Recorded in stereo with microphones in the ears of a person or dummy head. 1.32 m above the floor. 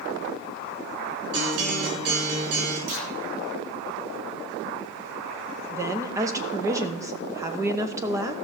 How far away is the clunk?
About 1.5 m.